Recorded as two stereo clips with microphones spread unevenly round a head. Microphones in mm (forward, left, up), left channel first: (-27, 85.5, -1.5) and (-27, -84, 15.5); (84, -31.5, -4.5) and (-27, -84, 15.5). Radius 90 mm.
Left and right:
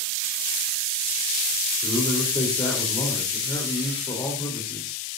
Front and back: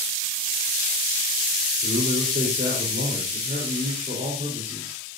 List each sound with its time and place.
1.8 s a man speaking: 155° left, 3.5 m